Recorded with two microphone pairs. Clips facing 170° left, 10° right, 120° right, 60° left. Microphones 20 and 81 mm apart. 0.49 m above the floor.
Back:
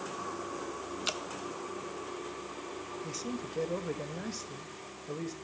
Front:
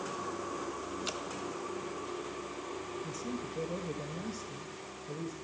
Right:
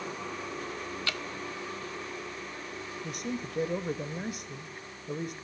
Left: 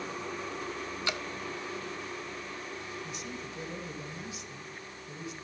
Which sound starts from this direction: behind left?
Dripping, at 1.1 s.